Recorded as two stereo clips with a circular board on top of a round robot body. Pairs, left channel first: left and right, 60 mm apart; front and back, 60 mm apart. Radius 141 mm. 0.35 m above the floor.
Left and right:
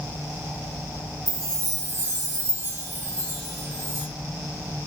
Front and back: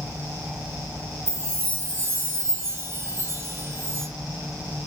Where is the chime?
130° right, 2.5 m.